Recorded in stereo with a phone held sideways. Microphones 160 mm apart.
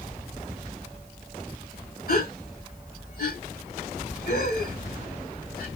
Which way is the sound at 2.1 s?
70° left (ahead or behind).